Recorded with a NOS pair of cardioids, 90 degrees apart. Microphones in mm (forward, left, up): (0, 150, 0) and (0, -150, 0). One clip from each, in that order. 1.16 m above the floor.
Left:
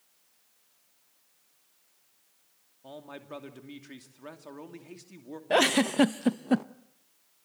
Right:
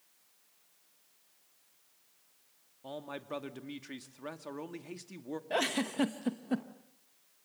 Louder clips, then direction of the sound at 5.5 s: Left 9 dB; 40° left.